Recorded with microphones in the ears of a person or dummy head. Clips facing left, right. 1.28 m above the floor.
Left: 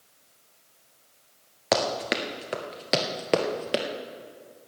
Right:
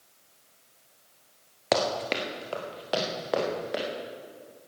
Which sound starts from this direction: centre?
Running footsteps, at 1.7 s.